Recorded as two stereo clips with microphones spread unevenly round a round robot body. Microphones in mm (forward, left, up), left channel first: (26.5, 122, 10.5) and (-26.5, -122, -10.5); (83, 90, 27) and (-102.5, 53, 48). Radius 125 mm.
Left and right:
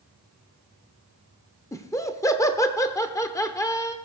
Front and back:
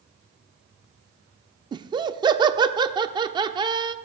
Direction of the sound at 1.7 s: 150° left.